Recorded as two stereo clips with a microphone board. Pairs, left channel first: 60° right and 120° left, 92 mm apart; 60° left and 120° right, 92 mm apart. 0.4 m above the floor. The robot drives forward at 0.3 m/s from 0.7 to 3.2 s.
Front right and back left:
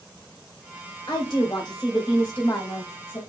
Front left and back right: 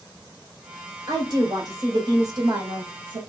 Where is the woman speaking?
95° right, 1.9 m; by 3.2 s 115° right, 2 m.